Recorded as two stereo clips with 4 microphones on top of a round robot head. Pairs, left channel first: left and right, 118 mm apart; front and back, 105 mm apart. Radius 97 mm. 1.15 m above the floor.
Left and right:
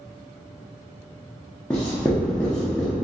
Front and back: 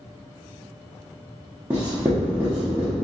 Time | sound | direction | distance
1.7 | writing | 155° left | 0.6 m